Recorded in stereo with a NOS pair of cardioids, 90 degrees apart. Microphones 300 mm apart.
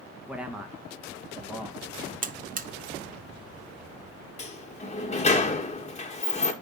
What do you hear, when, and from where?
0.3 s a man speaking: 5° right, 1.6 m
2.2 s a buzzer: 25° right, 1.1 m
4.4 s a sliding door: 20° left, 1.8 m